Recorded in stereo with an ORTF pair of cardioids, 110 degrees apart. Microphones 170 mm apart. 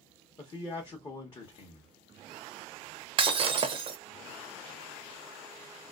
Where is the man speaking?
25° left, 0.8 m.